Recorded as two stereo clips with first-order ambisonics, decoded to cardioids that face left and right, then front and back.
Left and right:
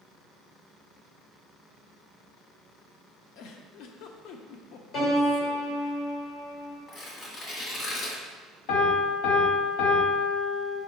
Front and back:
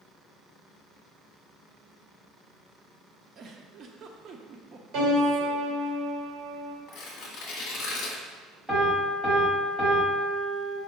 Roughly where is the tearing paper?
Ahead left.